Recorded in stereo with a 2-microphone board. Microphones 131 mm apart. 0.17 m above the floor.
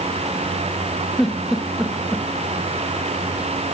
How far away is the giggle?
About 2.5 m.